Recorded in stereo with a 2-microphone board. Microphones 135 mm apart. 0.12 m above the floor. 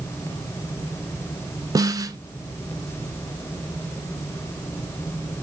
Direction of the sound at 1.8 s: 30° right (ahead or behind).